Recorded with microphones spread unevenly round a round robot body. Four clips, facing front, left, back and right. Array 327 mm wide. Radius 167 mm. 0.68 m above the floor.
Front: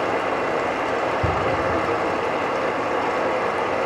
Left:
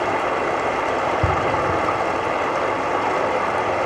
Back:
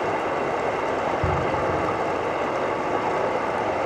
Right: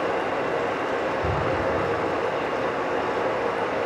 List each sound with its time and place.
0.0 s running water: 70° left, 1.1 m